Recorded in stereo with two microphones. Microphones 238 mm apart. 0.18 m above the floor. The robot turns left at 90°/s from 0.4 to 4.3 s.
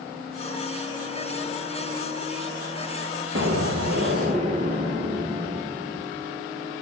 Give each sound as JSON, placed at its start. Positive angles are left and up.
{"t": 3.4, "sound": "an explosion", "azimuth_deg": -65, "distance_m": 2.5}